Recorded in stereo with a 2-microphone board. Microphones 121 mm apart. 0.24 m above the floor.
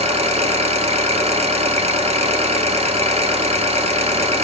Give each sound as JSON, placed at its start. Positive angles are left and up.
{"t": 0.0, "sound": "an engine running", "side_deg": -60, "distance_m": 1.3}